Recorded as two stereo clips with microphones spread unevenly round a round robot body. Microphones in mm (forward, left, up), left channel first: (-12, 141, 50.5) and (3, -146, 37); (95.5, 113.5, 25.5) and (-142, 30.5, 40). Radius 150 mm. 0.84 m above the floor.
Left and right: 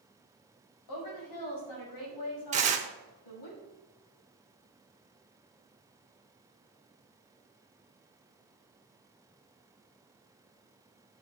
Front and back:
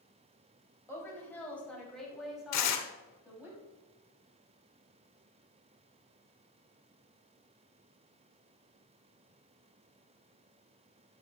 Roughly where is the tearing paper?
Ahead.